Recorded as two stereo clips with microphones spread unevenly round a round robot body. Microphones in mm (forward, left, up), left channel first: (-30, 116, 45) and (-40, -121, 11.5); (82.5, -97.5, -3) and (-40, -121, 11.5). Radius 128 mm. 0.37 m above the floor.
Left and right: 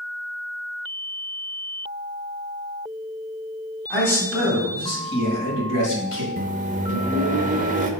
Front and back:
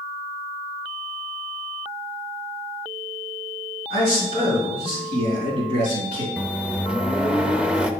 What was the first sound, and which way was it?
A man speaking, 170° left.